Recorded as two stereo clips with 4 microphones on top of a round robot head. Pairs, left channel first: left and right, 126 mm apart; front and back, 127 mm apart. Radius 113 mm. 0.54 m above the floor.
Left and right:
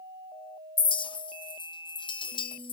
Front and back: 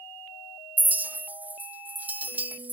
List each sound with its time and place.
0.8 s a clink: 110° left, 0.7 m